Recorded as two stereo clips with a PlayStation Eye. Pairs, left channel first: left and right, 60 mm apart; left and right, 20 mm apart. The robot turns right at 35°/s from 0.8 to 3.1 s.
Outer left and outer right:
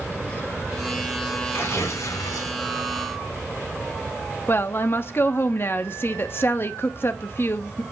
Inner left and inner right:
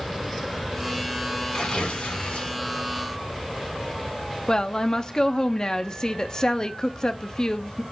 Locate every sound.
1.5 s tearing paper: 40° left, 3 m; by 2.6 s 80° left, 3 m
4.5 s a woman speaking: 40° left (ahead or behind), 0.9 m